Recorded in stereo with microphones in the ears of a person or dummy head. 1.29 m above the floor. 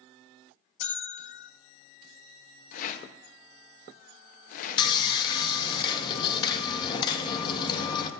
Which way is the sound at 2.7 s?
45° left (ahead or behind).